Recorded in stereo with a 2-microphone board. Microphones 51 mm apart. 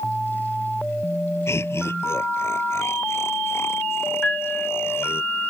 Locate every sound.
1.5 s laughter: 55° left (ahead or behind); by 5.2 s 50° left (ahead or behind)
4.2 s a piano: 20° left (ahead or behind)